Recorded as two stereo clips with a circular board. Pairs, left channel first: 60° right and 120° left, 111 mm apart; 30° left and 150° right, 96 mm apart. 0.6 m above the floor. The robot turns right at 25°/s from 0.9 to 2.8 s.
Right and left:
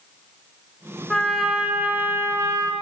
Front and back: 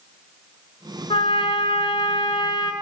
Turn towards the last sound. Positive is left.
turn(degrees=70)